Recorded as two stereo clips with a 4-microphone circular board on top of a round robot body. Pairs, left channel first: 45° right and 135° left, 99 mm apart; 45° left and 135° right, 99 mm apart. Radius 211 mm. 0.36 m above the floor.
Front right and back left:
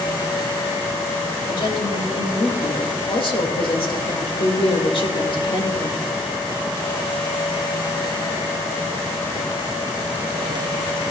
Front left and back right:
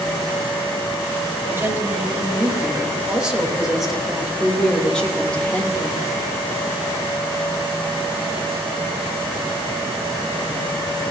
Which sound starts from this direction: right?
A woman speaking, at 1.5 s.